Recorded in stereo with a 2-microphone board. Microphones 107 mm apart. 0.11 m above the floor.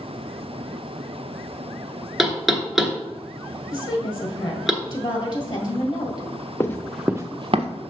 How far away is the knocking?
About 1.0 m.